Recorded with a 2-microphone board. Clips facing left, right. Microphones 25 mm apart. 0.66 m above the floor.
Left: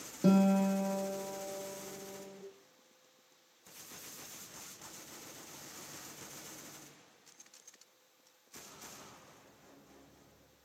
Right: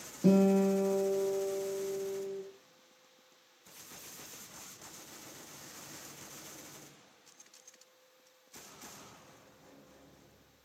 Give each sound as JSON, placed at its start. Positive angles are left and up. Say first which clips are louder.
{"t": 0.2, "sound": "a guitar", "louder": "right 2 dB", "side_deg": 30, "distance_m": 0.6}